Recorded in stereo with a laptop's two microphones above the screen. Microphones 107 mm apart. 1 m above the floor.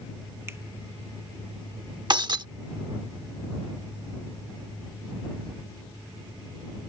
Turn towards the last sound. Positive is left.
turn(degrees=-45)  # may be behind; listen again after turning